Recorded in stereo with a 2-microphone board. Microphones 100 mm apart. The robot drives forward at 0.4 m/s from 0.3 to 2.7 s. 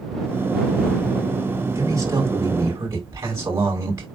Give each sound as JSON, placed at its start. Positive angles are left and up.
{"t": 1.8, "sound": "a man speaking", "side_deg": -35, "distance_m": 5.5}